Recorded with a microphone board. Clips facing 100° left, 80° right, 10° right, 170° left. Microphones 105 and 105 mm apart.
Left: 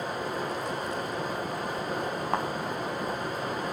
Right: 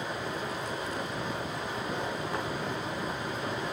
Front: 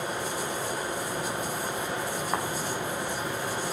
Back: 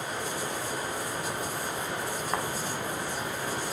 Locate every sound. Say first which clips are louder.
0.0 s running water: left 3 dB, front 2 dB; 55° left, 6.5 m
2.3 s a thud: left 8 dB, front 1 dB; 70° left, 3.5 m